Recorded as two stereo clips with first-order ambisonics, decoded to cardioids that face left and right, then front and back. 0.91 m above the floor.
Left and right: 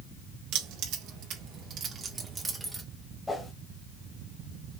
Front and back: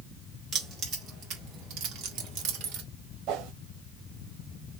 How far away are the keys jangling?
About 2 m.